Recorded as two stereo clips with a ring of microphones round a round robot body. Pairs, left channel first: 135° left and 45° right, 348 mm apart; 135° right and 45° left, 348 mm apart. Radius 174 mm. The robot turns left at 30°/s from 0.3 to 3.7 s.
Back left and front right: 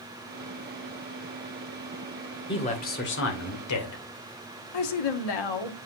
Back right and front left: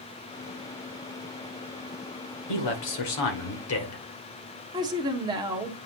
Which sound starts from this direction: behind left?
A woman speaking, at 4.7 s.